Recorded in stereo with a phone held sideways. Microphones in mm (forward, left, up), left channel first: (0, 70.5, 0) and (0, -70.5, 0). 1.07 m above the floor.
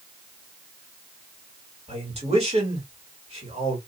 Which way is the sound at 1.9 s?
50° right (ahead or behind).